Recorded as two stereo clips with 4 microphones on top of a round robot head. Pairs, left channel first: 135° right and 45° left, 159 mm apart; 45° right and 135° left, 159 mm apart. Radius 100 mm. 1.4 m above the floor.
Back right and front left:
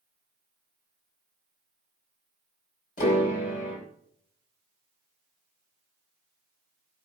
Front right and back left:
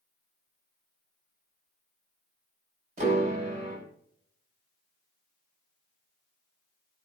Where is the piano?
175° right, 4.5 m.